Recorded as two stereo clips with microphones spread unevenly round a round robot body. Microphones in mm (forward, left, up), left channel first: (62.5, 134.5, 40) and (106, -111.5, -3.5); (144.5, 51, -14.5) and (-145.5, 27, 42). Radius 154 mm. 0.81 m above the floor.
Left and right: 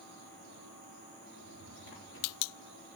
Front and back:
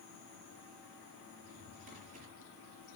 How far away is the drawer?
About 8.5 m.